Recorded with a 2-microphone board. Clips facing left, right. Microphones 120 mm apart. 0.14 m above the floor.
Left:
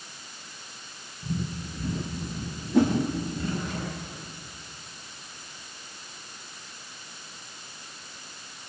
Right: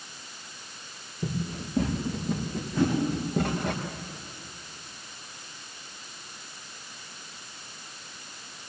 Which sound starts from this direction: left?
A whoosh, at 2.7 s.